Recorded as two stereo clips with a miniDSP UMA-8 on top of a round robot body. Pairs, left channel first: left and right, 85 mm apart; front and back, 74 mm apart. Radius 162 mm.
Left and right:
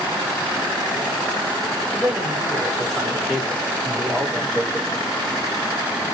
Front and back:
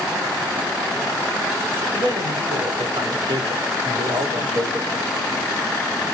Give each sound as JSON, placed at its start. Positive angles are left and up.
{"t": 1.9, "sound": "a man speaking", "azimuth_deg": 175, "distance_m": 5.0}